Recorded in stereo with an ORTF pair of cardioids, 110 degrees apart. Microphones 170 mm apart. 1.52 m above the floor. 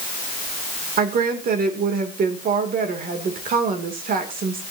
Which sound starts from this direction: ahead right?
A woman speaking, at 1.0 s.